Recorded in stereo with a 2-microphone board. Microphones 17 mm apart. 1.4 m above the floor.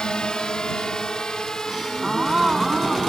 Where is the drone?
45° left (ahead or behind); by 3.1 s 30° left (ahead or behind).